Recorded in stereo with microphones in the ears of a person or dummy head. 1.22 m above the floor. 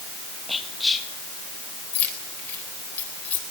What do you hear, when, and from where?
0.5 s whispering: 5° left (ahead or behind), 2.0 m
1.9 s keys jangling: 10° left (ahead or behind), 4 m